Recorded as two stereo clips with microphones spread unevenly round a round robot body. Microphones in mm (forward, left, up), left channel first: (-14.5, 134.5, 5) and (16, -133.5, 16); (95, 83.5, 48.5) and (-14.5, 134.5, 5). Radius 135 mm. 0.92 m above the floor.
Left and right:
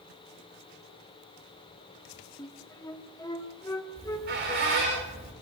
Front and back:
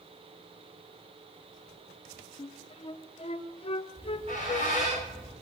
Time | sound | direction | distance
2.4 | a flute | 20° left | 1.6 m
4.0 | a squeak | 140° right | 9.5 m